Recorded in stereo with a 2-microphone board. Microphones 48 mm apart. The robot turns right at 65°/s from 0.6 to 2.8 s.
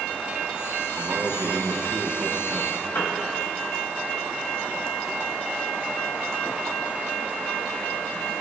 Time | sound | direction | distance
1.0 | a man speaking | 140° right | 1.3 m
3.0 | a piano | 60° left (ahead or behind) | 1.4 m